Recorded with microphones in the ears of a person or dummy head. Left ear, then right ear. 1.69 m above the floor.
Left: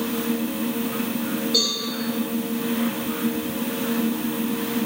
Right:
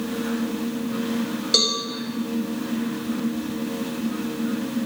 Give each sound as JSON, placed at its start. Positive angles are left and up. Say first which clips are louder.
{"t": 1.5, "sound": "a cowbell", "louder": "right 2 dB", "side_deg": -60, "distance_m": 0.8}